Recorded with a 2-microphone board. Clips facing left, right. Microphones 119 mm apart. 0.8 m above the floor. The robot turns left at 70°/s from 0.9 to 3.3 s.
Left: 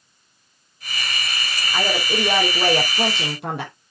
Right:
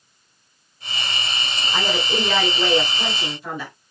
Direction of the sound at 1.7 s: 165° right.